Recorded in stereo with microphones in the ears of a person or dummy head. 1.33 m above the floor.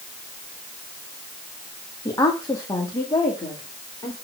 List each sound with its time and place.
2.0 s a woman speaking: 20° left (ahead or behind), 1.5 m